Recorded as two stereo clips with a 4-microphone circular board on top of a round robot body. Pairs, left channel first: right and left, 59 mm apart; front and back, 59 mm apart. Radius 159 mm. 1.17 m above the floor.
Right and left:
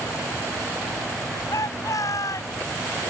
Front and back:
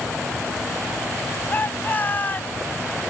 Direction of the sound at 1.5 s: 60° right.